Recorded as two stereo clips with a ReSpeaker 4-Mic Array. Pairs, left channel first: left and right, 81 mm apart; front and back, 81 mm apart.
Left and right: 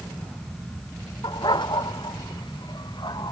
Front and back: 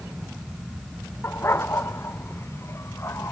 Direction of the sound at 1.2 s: 60° left.